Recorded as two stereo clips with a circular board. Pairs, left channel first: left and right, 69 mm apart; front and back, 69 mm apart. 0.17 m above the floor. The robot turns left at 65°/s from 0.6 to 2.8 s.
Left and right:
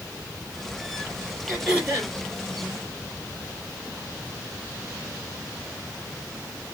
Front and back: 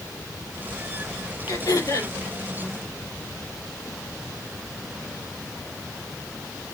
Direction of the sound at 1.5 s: Straight ahead.